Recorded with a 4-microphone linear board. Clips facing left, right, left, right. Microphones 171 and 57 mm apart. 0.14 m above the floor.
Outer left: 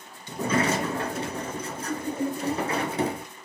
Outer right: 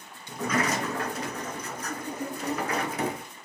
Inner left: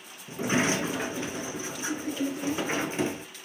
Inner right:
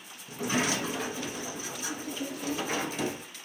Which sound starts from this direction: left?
A sliding door, at 0.3 s.